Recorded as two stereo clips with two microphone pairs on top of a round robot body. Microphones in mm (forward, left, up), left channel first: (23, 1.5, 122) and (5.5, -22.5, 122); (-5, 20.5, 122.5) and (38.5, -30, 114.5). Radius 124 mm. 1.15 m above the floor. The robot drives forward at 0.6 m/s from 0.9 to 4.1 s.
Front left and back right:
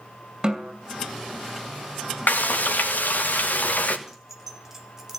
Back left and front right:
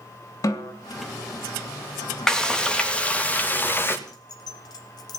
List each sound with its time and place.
0.4 s a snare drum: 160° left, 2.5 m
2.3 s frying: 50° left, 2.5 m; by 4.0 s 75° left, 1.9 m
4.1 s keys jangling: 155° left, 1.3 m